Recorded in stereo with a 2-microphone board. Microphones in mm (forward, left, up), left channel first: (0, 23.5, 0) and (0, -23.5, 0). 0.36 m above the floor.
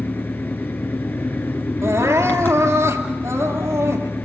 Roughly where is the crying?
Right.